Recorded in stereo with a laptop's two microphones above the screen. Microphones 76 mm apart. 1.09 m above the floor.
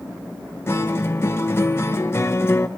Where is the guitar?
35° left (ahead or behind), 0.7 m.